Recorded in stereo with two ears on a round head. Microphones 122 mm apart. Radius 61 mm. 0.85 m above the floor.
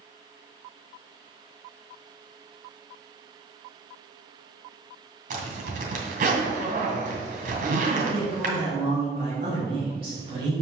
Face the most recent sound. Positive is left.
turn(degrees=-45)  # may be behind; listen again after turning